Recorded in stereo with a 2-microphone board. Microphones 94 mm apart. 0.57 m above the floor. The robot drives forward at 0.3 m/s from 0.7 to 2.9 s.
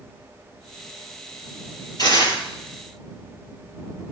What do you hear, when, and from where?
2.0 s tearing paper: 45° left (ahead or behind), 8 m